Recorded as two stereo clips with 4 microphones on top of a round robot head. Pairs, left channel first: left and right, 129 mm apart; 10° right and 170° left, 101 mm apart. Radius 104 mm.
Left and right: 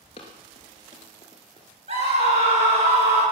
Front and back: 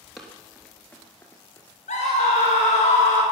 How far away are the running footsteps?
About 1.8 m.